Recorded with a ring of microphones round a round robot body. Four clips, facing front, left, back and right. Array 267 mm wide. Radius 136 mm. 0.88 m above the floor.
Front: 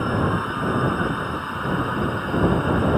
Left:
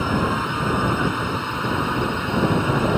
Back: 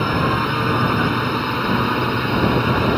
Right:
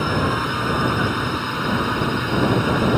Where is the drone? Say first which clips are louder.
Right 1 dB, back 4 dB; 175° right.